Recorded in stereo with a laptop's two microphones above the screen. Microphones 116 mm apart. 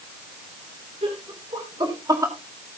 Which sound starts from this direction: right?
Laughter, at 1.0 s.